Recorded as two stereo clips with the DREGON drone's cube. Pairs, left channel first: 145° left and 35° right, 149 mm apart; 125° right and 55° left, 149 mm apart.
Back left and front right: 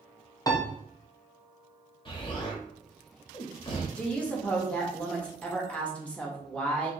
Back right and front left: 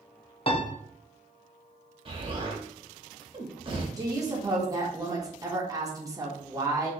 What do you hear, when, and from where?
0.5 s a piano: 155° right, 0.5 m
2.0 s an explosion: 100° left, 0.8 m
4.0 s a woman speaking: 75° left, 0.8 m